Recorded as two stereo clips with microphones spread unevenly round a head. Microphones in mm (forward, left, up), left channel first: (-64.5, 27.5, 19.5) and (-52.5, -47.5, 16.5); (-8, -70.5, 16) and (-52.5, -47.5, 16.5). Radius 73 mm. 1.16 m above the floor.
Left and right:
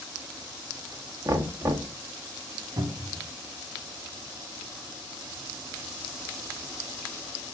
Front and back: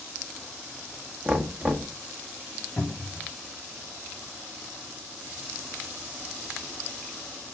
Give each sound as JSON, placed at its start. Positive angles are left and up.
{"t": 1.2, "sound": "knocking", "azimuth_deg": -130, "distance_m": 1.3}
{"t": 2.8, "sound": "a cupboard door", "azimuth_deg": -90, "distance_m": 3.0}